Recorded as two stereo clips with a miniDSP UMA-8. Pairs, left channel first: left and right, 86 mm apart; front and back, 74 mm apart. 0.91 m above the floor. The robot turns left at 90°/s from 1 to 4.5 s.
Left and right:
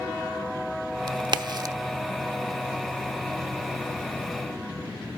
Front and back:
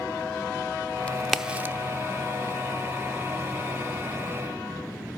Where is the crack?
65° right, 0.7 m; by 1.8 s 130° right, 0.7 m.